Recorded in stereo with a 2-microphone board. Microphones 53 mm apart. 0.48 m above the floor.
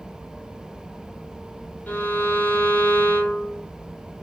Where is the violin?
35° left (ahead or behind), 0.9 m.